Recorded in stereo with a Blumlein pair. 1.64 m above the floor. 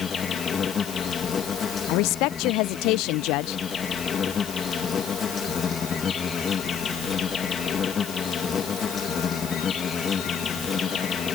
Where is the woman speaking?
40° left.